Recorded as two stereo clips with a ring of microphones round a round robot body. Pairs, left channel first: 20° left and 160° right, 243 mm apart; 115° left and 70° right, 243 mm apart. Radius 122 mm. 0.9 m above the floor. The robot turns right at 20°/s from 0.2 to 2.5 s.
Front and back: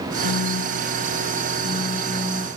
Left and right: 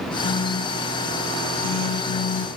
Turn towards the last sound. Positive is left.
turn(degrees=105)